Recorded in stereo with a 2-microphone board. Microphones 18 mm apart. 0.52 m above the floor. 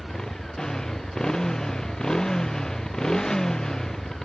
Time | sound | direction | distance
0.0 | a motorcycle | 30° left (ahead or behind) | ?